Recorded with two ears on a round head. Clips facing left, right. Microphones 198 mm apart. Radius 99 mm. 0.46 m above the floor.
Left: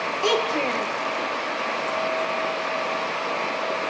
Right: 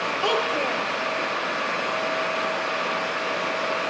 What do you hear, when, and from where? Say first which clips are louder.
0.2 s a child speaking: left 3 dB; 25° left (ahead or behind), 6 m